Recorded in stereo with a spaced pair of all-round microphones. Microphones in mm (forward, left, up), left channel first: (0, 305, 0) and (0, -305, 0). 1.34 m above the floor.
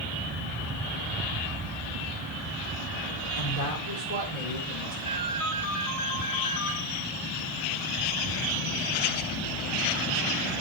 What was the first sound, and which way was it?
A woman speaking, 85° left.